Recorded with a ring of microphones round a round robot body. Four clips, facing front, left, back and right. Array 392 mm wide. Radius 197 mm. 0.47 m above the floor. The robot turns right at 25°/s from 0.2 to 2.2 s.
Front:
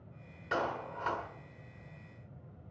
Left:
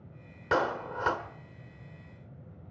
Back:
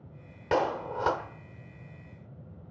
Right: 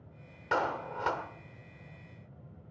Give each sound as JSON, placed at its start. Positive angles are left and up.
{"t": 0.5, "sound": "a clap", "azimuth_deg": 150, "distance_m": 1.5}